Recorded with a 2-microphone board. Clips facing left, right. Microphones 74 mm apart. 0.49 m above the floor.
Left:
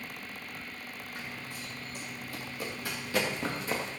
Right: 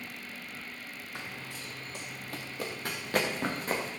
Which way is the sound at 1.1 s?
75° right (ahead or behind).